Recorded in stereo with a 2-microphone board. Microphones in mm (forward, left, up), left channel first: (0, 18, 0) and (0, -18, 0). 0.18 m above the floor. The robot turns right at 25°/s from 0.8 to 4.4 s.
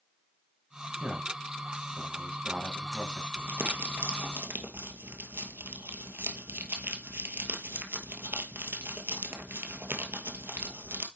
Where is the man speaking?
20° right (ahead or behind), 1.5 m.